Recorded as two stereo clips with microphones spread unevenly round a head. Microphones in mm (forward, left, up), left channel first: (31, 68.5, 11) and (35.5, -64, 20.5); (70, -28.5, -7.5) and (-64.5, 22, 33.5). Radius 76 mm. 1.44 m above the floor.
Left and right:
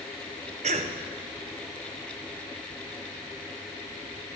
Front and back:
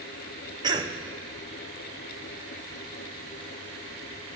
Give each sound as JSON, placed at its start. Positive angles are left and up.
{"t": 0.6, "sound": "a cough", "azimuth_deg": -140, "distance_m": 0.6}